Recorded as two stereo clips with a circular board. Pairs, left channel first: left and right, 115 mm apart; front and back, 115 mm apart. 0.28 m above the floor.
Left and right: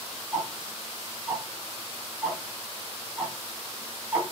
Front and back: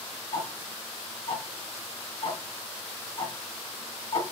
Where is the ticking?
10° right, 1.4 m.